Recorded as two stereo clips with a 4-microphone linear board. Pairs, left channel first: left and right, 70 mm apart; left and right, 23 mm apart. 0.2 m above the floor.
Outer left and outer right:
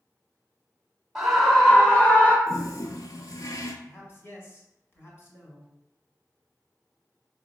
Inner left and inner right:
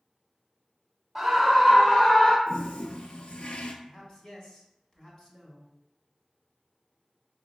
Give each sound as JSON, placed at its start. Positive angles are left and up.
{"t": 1.1, "sound": "a scream", "side_deg": -5, "distance_m": 1.1}
{"t": 2.5, "sound": "a toilet flushing", "side_deg": 60, "distance_m": 0.6}
{"t": 3.8, "sound": "a man speaking", "side_deg": 35, "distance_m": 1.3}